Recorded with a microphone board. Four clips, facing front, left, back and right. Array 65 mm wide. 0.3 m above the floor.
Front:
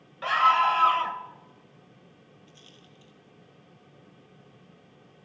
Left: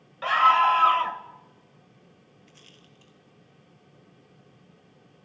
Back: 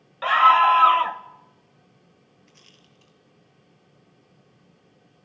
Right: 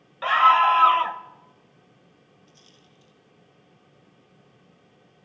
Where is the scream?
155° right, 1.3 m.